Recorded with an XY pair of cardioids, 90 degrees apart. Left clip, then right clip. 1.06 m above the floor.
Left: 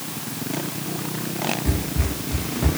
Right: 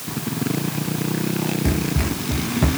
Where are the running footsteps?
50° right, 4.5 m.